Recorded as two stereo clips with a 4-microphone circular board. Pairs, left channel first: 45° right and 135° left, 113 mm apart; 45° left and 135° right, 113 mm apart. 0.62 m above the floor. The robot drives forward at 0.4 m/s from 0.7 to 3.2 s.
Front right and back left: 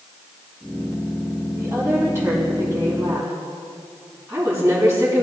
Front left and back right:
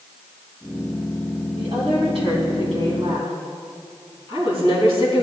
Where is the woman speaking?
160° right, 4 m.